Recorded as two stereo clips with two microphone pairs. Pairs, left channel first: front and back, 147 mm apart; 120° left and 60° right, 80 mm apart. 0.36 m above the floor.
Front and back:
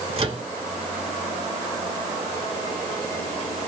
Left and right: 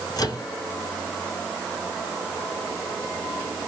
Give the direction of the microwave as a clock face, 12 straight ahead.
7 o'clock.